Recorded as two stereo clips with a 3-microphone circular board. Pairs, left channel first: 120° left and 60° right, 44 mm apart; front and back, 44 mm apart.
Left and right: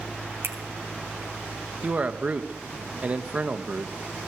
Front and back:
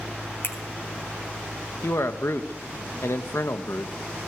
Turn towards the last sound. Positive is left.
turn(degrees=-5)